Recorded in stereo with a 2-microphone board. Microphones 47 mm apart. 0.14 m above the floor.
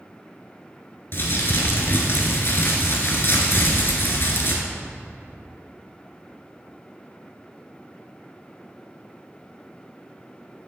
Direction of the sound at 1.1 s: 55° left (ahead or behind).